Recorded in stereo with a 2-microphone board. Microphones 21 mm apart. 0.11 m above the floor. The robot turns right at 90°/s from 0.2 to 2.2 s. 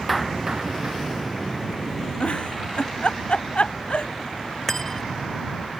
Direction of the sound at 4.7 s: 20° left (ahead or behind).